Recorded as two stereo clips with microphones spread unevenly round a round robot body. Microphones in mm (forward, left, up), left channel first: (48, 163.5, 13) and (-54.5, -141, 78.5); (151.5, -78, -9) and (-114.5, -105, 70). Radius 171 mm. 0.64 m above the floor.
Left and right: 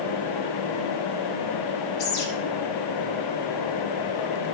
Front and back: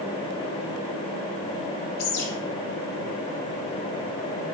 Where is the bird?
30° left, 2 m.